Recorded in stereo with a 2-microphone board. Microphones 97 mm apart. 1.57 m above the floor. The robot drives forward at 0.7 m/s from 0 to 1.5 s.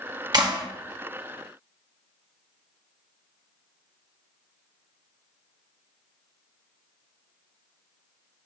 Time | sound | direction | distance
0.3 | a clap | 45° right (ahead or behind) | 1.1 m